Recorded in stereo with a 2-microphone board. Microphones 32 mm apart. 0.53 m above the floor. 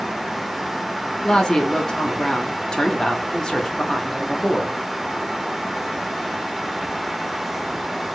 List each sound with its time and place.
1.2 s a woman speaking: 20° left (ahead or behind), 0.6 m